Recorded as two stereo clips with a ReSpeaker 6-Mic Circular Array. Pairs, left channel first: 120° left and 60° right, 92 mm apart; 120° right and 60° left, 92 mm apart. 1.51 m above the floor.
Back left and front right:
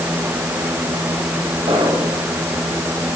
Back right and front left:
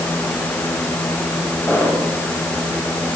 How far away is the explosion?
About 10 m.